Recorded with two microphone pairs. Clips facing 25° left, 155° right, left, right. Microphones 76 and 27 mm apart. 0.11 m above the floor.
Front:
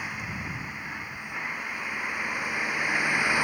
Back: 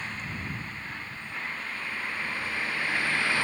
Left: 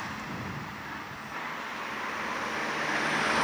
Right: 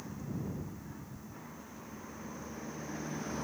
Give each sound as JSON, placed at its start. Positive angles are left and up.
{"t": 0.0, "sound": "a vehicle", "azimuth_deg": 105}